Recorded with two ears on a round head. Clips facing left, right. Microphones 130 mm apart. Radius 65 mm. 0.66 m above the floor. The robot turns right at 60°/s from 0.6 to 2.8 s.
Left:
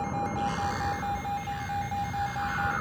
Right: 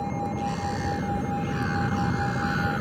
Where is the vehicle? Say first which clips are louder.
Right 1 dB; 165° right; by 2.8 s 35° right.